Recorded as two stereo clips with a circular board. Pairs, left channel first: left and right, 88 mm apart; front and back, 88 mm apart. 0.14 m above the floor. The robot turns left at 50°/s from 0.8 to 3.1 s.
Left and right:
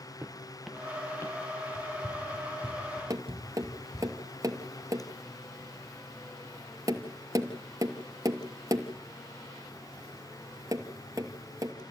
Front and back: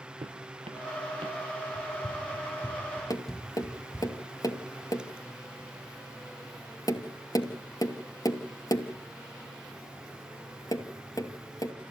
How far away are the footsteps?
About 0.9 m.